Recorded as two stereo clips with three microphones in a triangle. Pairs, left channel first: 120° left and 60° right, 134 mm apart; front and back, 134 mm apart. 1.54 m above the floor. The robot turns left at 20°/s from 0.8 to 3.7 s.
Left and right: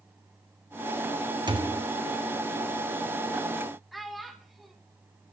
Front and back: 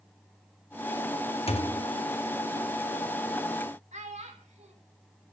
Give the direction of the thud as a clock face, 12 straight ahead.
1 o'clock.